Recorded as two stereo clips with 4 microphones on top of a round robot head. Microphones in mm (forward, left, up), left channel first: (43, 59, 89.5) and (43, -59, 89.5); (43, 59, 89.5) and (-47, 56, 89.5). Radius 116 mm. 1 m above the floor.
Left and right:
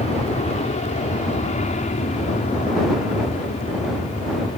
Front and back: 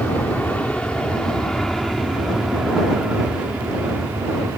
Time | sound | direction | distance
0.0 | an aircraft | 70° left | ?